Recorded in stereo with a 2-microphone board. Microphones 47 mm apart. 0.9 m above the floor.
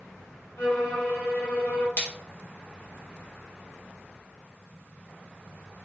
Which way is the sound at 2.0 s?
50° left (ahead or behind).